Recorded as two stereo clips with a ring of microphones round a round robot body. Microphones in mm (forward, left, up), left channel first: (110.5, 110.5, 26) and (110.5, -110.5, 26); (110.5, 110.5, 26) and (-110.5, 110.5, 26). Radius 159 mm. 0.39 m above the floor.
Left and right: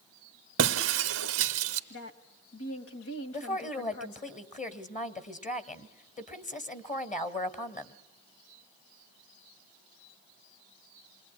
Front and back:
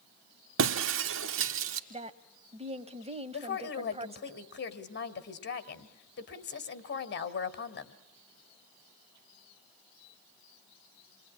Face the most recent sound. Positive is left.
turn(degrees=35)